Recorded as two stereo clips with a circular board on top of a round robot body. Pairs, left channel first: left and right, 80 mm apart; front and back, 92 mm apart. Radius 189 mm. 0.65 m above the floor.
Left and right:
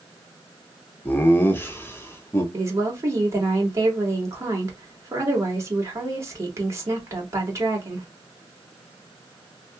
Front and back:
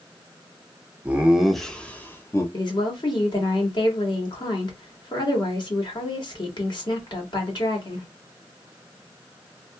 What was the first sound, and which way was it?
Laughter, 125° left.